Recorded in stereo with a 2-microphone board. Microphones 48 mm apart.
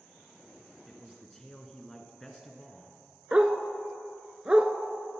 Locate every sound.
0.9 s a man speaking: 10° left (ahead or behind), 1.7 m
3.3 s a dog barking: 20° right (ahead or behind), 0.7 m